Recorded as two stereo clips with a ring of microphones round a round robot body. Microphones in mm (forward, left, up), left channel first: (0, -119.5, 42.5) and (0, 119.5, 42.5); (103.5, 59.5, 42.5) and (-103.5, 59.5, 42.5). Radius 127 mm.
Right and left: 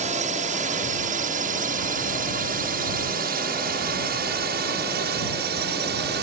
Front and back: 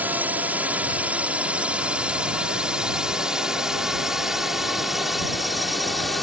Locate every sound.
0.0 s a drone: 105° left; by 6.2 s 90° left